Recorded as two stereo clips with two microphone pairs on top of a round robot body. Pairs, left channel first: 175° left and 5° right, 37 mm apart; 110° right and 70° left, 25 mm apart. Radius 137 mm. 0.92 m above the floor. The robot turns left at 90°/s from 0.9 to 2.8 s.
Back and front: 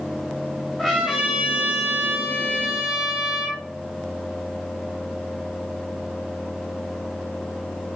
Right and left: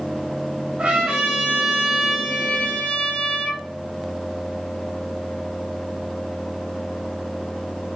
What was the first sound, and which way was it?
A trumpet, 90° left.